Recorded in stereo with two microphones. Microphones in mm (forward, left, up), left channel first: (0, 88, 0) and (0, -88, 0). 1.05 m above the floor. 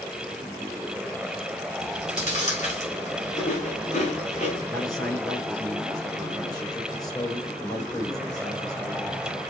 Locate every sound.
1.8 s chewing: 45° left (ahead or behind), 3 m
4.7 s a man speaking: 20° left (ahead or behind), 3.5 m